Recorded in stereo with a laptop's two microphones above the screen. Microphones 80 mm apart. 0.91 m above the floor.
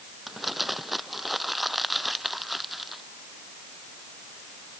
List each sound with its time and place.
0.3 s crumpling: centre (ahead or behind)